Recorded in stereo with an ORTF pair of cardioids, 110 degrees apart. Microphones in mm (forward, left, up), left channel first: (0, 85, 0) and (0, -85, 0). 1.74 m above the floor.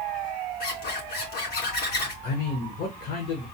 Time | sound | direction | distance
0.6 | a zipper | 70° left | 3 m
2.2 | a man speaking | 65° left | 1.4 m